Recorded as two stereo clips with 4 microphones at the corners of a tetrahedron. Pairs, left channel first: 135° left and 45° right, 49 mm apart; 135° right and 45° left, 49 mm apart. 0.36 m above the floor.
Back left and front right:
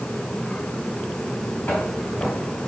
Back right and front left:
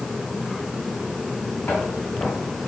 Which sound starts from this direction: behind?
Footsteps, at 1.7 s.